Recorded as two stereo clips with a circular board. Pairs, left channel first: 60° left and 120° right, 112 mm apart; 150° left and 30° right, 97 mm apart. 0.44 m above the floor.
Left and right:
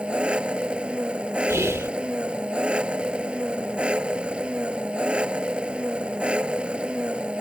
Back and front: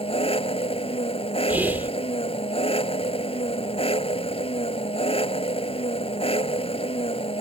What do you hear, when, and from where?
0.0 s an engine running: 160° left
1.5 s whispering: 85° right